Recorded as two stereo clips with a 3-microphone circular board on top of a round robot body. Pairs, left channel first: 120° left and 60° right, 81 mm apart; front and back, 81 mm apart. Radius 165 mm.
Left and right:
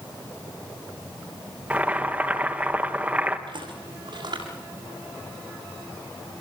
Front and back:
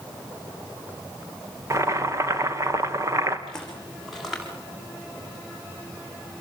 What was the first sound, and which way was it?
Boiling, 130° right.